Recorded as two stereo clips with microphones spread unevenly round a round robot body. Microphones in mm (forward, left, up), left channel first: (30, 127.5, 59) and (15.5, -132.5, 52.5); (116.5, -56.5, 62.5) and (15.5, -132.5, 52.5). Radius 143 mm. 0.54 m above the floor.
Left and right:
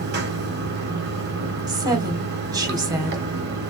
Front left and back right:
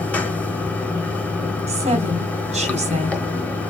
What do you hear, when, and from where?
0.0 s running water: 40° right, 1.5 m
1.7 s a woman speaking: 165° right, 1.5 m